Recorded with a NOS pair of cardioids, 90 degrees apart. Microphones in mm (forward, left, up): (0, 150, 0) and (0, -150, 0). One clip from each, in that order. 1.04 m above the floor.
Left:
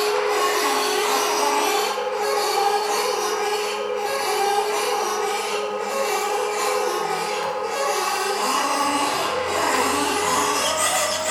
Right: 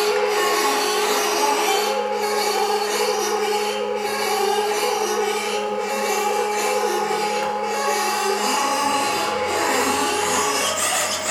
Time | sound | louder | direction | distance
0.0 | a machine running | right 1 dB | 10° right | 4.5 m